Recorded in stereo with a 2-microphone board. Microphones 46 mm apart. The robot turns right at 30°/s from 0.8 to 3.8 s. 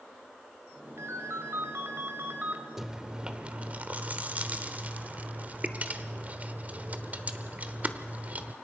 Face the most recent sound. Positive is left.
turn(degrees=-140)